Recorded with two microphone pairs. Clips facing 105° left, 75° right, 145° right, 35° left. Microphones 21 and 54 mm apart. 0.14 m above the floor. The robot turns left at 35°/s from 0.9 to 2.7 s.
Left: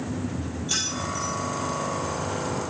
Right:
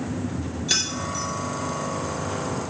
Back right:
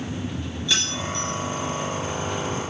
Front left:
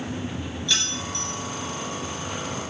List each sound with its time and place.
0.7 s keys jangling: 70° right, 1.8 m; by 1.3 s 85° right, 1.8 m